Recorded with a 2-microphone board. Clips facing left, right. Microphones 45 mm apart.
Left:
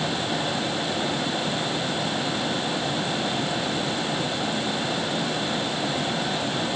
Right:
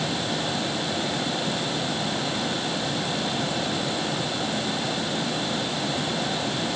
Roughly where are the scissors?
I don't hear scissors.